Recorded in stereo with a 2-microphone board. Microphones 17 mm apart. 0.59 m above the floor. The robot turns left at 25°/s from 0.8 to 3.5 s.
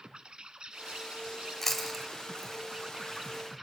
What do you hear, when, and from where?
0.0 s an insect: 100° right, 0.9 m; by 3.6 s 165° right, 0.9 m
1.6 s chewing: 15° left (ahead or behind), 2.5 m; by 3.6 s 30° right (ahead or behind), 2.5 m